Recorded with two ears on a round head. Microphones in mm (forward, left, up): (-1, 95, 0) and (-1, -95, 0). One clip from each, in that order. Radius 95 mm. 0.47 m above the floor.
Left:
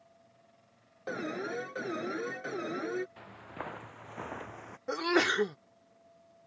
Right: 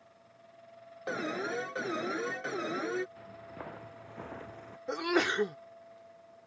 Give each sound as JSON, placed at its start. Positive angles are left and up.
{"t": 1.1, "sound": "an alarm", "side_deg": -20}
{"t": 3.2, "sound": "footsteps", "side_deg": 35}
{"t": 4.9, "sound": "a sneeze", "side_deg": 10}